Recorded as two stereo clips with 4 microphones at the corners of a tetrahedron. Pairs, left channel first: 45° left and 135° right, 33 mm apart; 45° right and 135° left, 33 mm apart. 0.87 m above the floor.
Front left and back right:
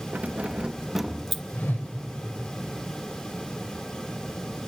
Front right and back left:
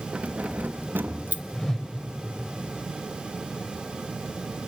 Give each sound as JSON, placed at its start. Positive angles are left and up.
{"t": 0.1, "sound": "keys jangling", "azimuth_deg": -175, "distance_m": 0.8}
{"t": 1.5, "sound": "a whoosh", "azimuth_deg": 35, "distance_m": 2.5}